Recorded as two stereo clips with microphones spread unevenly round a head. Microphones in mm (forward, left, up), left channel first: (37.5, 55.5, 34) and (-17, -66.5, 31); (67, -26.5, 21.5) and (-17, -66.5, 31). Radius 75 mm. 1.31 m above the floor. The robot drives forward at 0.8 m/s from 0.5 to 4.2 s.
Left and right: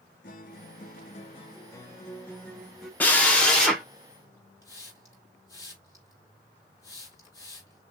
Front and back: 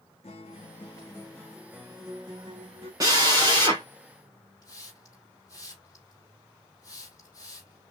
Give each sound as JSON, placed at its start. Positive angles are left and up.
{"t": 0.2, "sound": "a guitar", "azimuth_deg": 60, "distance_m": 1.0}
{"t": 3.0, "sound": "a drill", "azimuth_deg": 145, "distance_m": 1.6}
{"t": 4.6, "sound": "a hiss", "azimuth_deg": 135, "distance_m": 2.5}